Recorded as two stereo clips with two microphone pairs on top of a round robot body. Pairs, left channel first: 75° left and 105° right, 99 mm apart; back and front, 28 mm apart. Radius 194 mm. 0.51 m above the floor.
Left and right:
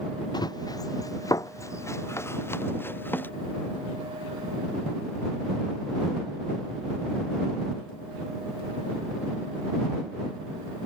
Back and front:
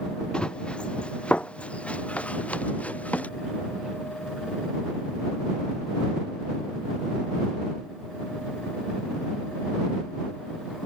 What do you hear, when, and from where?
0.3 s running footsteps: 125° left; by 3.3 s 145° left